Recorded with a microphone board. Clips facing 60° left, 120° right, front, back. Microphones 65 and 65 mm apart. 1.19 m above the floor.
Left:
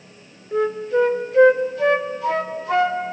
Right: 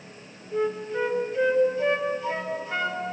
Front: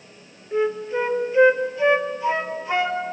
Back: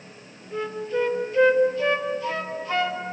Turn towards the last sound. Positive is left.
turn(degrees=70)